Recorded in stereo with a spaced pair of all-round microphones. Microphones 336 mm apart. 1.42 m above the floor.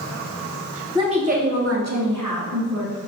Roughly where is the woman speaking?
Centre.